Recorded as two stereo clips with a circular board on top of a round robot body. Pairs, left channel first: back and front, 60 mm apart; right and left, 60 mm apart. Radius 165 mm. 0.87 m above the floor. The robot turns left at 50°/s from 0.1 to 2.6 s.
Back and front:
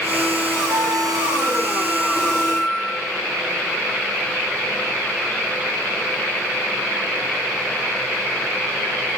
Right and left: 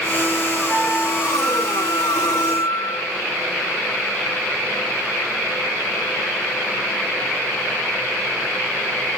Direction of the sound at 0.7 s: Straight ahead.